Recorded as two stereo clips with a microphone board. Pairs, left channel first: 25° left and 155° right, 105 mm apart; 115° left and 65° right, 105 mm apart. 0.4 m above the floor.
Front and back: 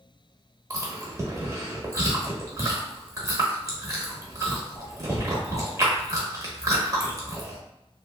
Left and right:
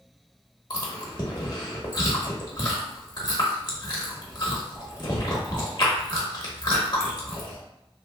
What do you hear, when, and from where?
0.7 s chewing: 150° left, 0.8 m